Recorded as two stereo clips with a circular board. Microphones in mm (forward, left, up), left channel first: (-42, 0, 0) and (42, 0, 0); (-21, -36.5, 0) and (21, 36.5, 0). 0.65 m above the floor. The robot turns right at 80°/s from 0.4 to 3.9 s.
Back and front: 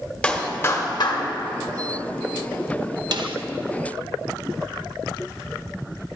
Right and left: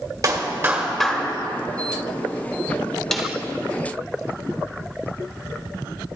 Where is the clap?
100° left, 1.5 m; by 1.2 s 170° left, 1.5 m.